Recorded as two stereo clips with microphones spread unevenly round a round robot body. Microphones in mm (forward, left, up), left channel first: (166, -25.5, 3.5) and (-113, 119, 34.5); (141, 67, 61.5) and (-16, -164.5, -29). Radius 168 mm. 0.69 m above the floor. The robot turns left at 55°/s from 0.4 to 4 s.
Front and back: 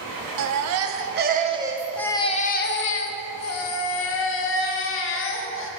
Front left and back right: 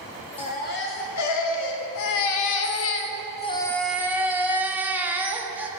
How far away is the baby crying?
About 0.6 m.